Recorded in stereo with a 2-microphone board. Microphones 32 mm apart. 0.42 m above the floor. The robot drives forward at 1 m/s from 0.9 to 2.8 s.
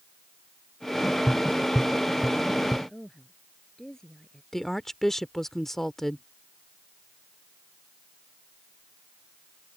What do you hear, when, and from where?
1.3 s tapping: 5° right (ahead or behind)
2.9 s a woman speaking: 15° left (ahead or behind)
4.5 s a woman speaking: 10° left (ahead or behind)